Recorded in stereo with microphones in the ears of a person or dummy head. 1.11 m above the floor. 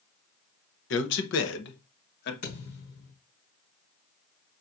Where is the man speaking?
60° left (ahead or behind), 0.7 m; by 2.3 s 55° left (ahead or behind), 1.3 m.